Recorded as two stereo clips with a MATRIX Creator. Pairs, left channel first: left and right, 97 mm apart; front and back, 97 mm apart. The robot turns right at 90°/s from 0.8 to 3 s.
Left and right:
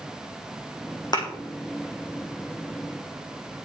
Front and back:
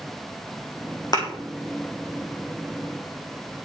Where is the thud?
45° left, 3 m; by 1.3 s 60° left, 3 m.